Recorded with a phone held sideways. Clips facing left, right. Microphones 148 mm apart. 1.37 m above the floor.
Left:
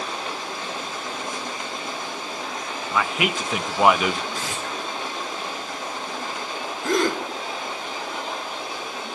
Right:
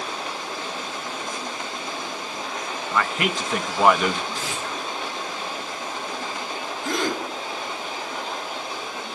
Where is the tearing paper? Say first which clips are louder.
Even; 70° left (ahead or behind), 7.5 m.